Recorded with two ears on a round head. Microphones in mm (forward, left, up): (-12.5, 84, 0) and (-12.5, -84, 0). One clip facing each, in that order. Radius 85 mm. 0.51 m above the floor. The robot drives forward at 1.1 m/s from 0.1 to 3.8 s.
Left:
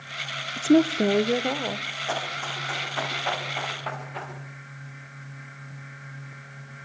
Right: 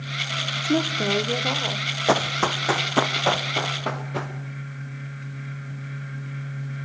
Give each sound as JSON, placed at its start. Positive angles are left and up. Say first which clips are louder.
{"t": 0.6, "sound": "a woman speaking", "louder": "left 5 dB", "side_deg": 30, "distance_m": 0.8}
{"t": 2.1, "sound": "running footsteps", "louder": "right 10 dB", "side_deg": -65, "distance_m": 1.5}